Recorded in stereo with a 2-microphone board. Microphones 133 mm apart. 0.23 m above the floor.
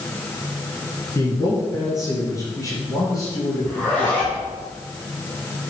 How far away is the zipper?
About 4 m.